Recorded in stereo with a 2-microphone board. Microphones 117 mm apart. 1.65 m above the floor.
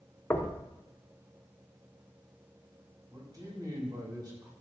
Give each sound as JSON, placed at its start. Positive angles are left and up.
{"t": 0.3, "sound": "knocking", "side_deg": 20, "distance_m": 0.9}
{"t": 3.1, "sound": "a man speaking", "side_deg": -35, "distance_m": 3.5}